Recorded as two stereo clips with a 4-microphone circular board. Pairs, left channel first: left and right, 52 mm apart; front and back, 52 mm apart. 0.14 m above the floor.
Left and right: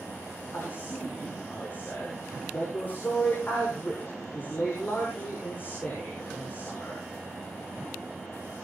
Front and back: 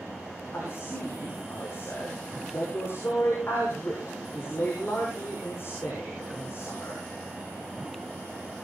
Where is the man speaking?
40° left, 7.5 m.